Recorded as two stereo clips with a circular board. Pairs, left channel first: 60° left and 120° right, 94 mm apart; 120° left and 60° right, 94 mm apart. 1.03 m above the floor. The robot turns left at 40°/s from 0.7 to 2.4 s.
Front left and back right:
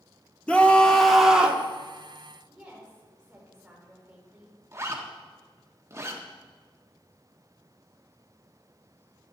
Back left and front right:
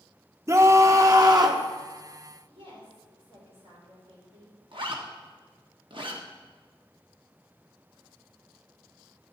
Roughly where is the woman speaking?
Ahead right.